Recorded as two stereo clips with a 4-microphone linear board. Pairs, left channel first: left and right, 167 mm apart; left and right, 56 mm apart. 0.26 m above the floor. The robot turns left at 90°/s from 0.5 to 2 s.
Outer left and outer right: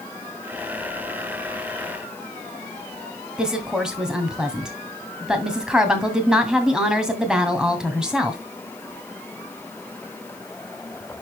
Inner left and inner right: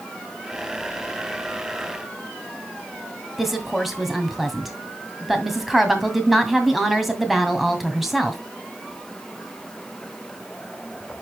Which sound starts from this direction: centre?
A woman speaking, at 3.4 s.